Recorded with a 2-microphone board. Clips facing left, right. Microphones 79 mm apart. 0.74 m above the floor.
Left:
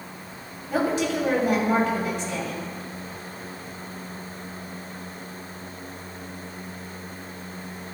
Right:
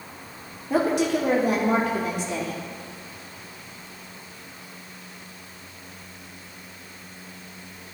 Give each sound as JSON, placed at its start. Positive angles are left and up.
{"t": 0.7, "sound": "a woman speaking", "side_deg": -70, "distance_m": 1.8}